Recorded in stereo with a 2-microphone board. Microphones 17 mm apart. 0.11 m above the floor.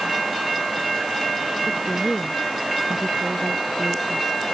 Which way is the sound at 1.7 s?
25° right (ahead or behind).